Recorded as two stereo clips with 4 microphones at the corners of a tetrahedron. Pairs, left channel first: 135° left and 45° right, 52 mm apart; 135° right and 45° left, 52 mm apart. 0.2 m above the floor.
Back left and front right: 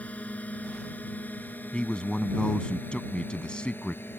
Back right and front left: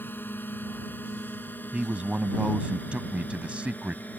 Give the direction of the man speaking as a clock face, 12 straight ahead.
9 o'clock.